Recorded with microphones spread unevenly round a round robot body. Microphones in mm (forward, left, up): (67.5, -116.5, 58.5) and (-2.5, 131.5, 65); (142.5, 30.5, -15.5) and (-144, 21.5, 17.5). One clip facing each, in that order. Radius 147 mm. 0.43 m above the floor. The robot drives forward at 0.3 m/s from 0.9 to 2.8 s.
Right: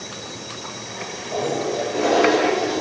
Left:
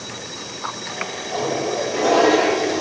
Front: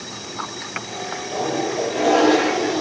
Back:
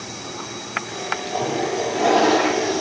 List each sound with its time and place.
1.3 s a toilet flushing: 150° right, 1.4 m; by 2.8 s 160° right, 1.7 m